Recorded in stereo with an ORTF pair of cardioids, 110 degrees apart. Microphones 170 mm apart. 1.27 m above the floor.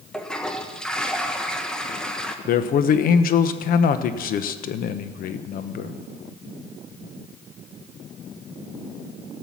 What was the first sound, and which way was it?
A toilet flushing, 5° left.